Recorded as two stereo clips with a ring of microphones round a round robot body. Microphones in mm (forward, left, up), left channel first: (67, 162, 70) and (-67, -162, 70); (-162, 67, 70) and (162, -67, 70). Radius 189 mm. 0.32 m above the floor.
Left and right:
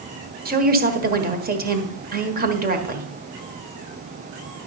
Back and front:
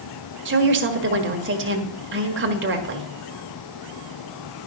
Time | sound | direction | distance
0.5 | a woman speaking | 60° right | 1.5 m